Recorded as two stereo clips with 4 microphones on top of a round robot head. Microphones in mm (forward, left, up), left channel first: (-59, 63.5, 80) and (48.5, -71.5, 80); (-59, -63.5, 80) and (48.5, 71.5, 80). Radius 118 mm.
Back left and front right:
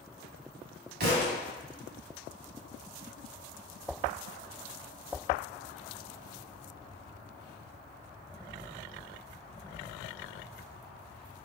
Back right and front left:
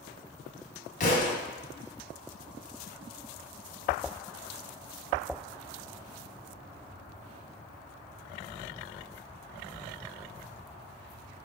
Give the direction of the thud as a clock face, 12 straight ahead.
3 o'clock.